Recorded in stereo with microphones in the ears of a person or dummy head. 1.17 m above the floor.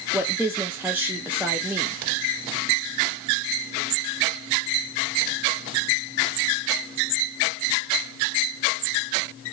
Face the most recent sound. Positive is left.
turn(degrees=-15)  # may be behind; listen again after turning